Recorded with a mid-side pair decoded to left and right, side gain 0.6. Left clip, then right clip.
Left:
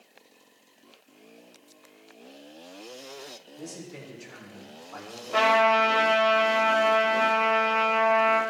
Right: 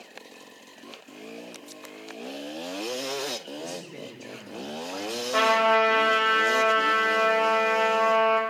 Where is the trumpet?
5° right, 3 m.